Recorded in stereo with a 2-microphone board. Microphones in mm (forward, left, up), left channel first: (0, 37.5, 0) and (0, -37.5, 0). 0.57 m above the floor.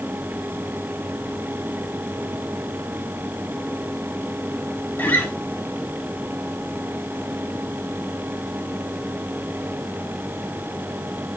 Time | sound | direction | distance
5.0 | a guitar | 25° left (ahead or behind) | 1.4 m